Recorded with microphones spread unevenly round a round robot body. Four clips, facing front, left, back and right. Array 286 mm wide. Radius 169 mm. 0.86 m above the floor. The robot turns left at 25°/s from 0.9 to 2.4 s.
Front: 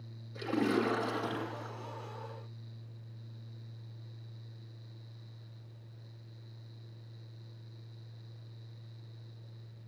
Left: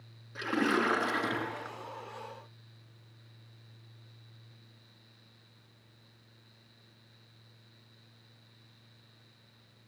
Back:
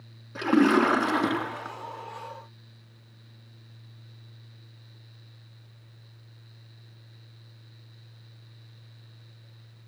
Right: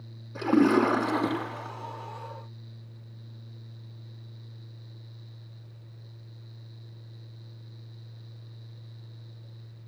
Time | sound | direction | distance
0.3 | a splash | 145° right | 3.5 m